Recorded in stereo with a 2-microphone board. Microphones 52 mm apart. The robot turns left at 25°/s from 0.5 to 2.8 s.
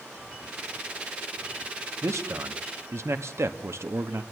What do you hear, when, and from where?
2.0 s a man speaking: 75° right (ahead or behind), 1.6 m; by 4.2 s 70° right (ahead or behind), 1.6 m